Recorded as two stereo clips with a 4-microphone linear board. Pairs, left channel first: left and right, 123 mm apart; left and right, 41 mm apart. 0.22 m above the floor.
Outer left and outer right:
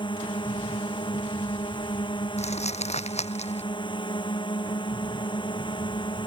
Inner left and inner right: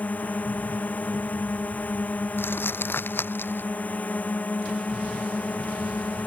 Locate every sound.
0.0 s a drone: 40° left (ahead or behind)
2.4 s crumpling: 60° left (ahead or behind)